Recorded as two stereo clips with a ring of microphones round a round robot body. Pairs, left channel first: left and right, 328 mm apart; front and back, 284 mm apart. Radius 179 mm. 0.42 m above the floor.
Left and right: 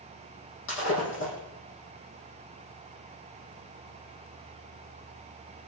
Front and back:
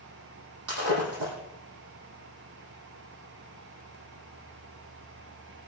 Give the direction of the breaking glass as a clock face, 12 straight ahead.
7 o'clock.